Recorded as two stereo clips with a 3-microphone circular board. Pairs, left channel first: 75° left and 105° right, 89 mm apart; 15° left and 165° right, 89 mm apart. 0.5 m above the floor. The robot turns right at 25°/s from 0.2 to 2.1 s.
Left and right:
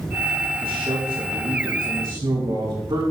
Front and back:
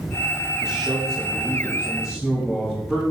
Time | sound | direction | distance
0.6 | a man speaking | 115° right | 4 m